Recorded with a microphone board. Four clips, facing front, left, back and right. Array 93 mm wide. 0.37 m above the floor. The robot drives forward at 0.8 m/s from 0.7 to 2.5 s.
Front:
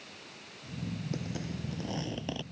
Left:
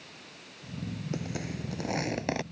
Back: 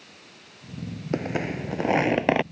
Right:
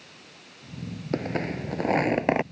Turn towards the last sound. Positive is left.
turn(degrees=-150)